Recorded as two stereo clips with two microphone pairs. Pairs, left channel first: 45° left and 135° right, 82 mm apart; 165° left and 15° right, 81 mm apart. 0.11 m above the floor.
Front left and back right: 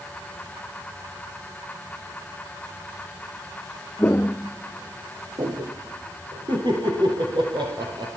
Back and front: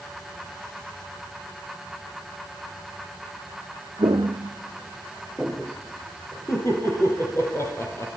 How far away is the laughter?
About 3.5 m.